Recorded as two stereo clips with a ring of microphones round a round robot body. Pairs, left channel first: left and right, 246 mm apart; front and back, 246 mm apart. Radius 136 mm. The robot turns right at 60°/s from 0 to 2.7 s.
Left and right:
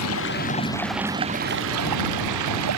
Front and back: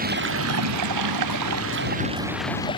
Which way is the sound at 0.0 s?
125° left.